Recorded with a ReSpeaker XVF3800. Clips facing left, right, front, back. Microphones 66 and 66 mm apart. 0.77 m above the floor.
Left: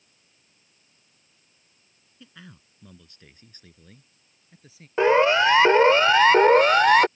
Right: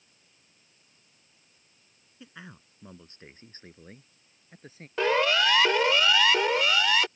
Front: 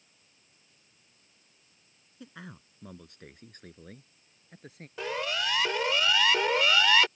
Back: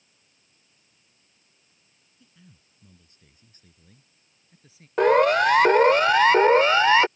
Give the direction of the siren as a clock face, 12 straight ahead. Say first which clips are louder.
Left 6 dB, back 15 dB; 7 o'clock.